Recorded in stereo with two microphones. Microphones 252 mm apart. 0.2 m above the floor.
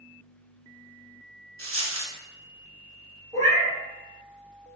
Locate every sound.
1.6 s a dropped coin: 60° right (ahead or behind), 0.8 m
3.3 s a cat meowing: 25° right (ahead or behind), 1.2 m